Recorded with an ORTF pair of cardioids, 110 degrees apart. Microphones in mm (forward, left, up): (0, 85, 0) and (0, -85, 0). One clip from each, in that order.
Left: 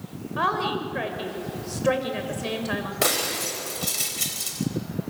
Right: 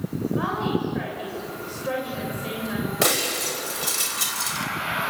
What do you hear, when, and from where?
0.4 s a woman speaking: 45° left, 7 m
3.0 s breaking glass: 10° right, 4.5 m